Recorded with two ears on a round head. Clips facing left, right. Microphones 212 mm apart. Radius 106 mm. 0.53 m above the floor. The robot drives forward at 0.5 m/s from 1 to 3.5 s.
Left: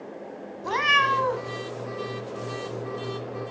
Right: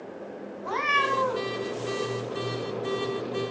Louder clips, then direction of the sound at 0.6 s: Left 1 dB; 55° left (ahead or behind).